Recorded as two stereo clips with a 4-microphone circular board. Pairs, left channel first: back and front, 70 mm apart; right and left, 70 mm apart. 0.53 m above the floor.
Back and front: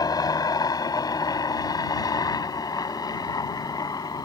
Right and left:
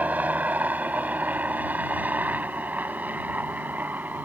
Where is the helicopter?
160° left.